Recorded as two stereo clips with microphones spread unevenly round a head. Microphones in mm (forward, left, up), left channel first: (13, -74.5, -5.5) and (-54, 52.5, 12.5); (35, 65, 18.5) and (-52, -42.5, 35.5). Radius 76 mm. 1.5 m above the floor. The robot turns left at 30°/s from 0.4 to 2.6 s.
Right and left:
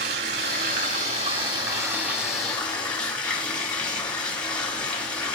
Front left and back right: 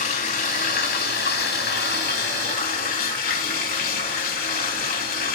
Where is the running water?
85° left, 3 m; by 5.3 s 20° left, 3 m.